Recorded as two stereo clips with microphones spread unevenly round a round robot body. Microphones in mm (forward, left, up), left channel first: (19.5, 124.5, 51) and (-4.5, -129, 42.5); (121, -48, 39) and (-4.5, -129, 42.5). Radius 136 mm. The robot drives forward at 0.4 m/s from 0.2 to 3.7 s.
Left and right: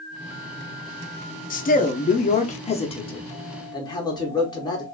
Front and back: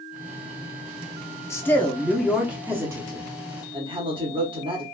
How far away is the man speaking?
About 0.7 m.